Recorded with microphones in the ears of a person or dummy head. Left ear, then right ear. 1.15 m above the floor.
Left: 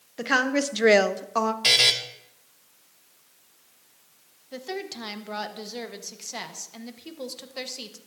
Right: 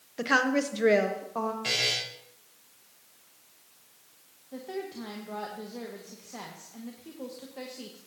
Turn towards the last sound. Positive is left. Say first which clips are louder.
# left 3 dB
turn(degrees=80)